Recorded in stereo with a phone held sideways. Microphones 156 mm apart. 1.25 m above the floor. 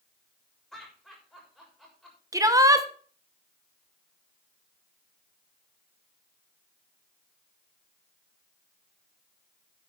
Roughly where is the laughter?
Centre.